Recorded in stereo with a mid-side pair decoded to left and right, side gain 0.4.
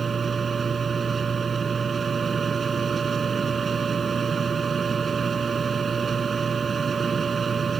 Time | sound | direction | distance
0.0 | a machine running | 45° right | ?